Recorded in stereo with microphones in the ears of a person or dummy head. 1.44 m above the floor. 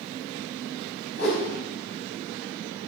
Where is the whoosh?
70° left (ahead or behind), 5 m.